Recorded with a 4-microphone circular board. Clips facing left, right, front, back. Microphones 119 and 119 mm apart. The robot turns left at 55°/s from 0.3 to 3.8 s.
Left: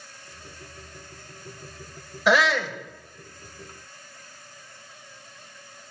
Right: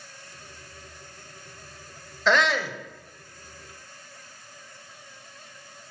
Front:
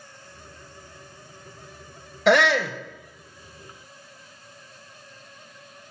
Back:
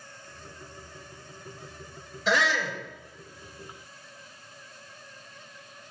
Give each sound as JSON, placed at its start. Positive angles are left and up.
{"t": 2.3, "sound": "a shout", "azimuth_deg": 15, "distance_m": 0.8}